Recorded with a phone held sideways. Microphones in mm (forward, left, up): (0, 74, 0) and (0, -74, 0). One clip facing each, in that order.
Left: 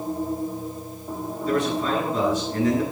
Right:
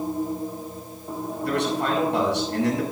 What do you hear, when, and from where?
1.4 s a man speaking: 80° right, 8 m